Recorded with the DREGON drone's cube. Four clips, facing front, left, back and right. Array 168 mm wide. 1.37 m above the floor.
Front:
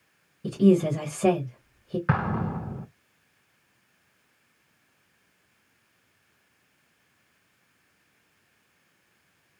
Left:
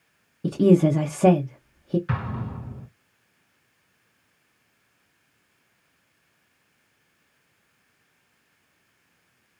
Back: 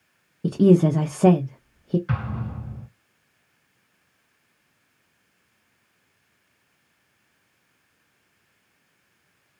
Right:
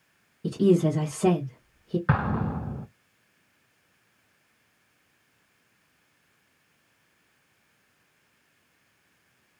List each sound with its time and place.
0.4 s a woman speaking: 145° left, 0.8 m
2.1 s an explosion: 45° right, 0.6 m